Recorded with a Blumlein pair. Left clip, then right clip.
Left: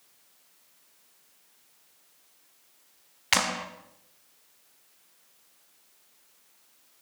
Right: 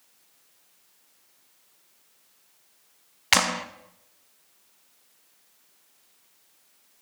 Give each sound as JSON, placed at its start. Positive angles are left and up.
{"t": 3.3, "sound": "a clap", "azimuth_deg": -15, "distance_m": 1.0}